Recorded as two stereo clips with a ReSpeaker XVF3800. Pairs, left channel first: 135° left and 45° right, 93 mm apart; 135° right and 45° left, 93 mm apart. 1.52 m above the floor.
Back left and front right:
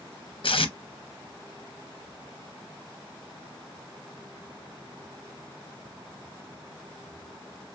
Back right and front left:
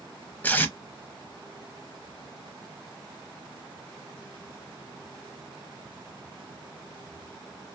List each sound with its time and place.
0.4 s tape being pulled: 155° left, 0.6 m